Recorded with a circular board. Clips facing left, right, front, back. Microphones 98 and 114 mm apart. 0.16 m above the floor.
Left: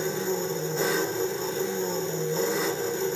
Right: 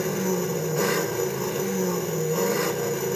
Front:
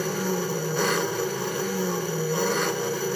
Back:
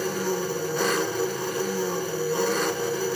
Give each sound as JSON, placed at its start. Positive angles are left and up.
{"t": 0.0, "sound": "an engine running", "azimuth_deg": -90, "distance_m": 1.0}